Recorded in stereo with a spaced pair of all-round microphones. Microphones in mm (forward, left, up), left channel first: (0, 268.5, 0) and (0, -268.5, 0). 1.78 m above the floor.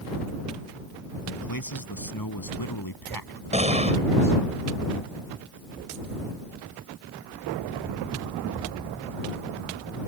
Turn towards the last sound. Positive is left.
turn(degrees=-10)  # may be behind; listen again after turning